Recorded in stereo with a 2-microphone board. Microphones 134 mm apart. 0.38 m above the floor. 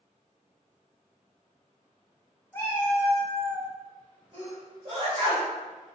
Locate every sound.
2.5 s a cat meowing: 15° left (ahead or behind), 0.6 m; by 3.7 s 25° left (ahead or behind), 0.7 m
4.3 s a sneeze: 45° right (ahead or behind), 1.8 m